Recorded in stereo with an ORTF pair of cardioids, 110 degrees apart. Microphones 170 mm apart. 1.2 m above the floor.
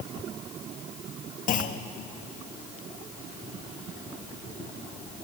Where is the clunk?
50° left, 1.4 m.